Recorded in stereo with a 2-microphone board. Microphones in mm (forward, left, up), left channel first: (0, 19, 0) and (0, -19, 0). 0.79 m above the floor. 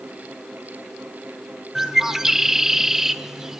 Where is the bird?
10° right (ahead or behind), 0.9 m.